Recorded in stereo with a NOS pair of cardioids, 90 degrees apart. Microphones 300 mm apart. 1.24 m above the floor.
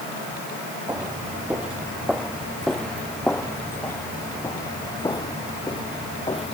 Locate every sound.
0.9 s footsteps: 5° right; by 6.5 s 20° left